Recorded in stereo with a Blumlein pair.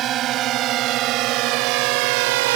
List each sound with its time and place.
0.0 s a drone: 30° right; by 2.6 s 50° right